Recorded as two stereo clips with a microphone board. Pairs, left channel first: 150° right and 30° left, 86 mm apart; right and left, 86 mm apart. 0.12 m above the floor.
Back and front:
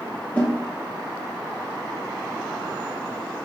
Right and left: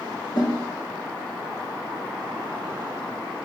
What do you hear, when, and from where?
0.3 s a snare drum: 80° right, 4 m